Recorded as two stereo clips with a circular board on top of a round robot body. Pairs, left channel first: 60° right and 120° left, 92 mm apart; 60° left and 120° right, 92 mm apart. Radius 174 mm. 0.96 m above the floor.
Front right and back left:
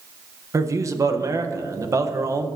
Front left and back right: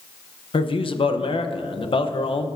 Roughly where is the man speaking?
Ahead left.